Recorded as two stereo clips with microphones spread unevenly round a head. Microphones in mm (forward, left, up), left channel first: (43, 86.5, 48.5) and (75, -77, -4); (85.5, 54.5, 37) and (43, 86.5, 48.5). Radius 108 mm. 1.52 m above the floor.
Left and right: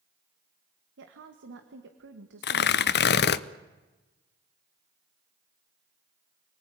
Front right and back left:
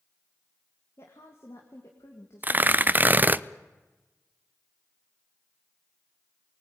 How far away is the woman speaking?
About 1.8 m.